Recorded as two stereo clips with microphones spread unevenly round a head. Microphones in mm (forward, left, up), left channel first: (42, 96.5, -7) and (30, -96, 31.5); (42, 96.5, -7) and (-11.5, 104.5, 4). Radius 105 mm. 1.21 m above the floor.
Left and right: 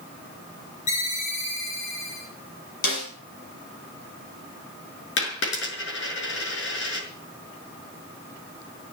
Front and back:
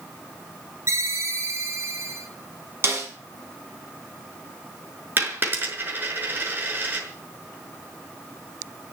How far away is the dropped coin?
About 6 m.